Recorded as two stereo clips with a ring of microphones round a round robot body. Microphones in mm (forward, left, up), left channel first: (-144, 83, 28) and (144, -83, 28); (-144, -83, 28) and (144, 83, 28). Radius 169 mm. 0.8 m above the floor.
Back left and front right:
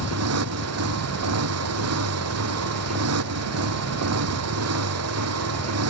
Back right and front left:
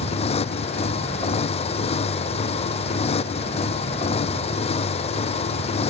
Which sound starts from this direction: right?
A motorcycle, at 0.0 s.